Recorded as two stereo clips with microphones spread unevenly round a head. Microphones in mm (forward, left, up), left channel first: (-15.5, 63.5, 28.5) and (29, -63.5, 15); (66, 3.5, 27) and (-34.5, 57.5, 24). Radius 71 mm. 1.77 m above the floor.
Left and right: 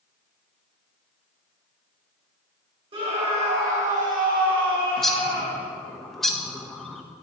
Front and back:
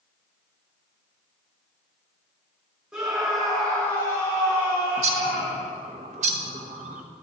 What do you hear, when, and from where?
2.9 s a scream: 125° right, 1.8 m; by 5.7 s 75° right, 2 m
5.0 s a bird: 165° right, 0.6 m